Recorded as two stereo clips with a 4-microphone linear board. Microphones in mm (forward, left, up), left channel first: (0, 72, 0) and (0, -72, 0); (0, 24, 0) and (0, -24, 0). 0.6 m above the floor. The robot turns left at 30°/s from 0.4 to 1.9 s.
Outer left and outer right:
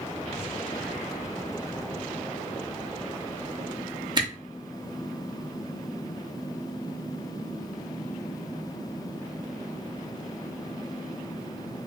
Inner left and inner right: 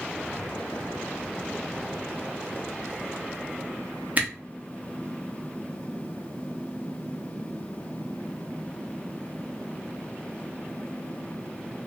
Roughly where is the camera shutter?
Right.